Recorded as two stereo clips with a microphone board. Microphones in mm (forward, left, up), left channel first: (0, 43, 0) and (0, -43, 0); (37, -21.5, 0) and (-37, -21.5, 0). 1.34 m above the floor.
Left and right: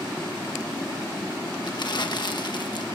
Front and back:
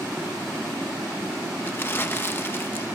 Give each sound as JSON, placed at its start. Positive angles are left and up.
{"t": 1.6, "sound": "crumpling", "azimuth_deg": 60, "distance_m": 1.3}